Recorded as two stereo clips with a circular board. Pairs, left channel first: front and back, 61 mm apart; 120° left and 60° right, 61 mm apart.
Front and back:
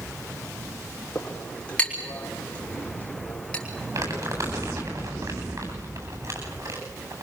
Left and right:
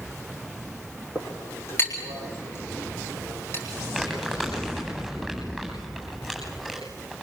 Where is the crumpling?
155° right, 9 m.